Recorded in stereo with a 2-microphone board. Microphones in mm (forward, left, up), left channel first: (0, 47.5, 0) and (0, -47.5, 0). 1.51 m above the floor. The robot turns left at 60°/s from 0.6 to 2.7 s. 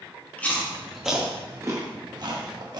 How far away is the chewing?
About 1.2 m.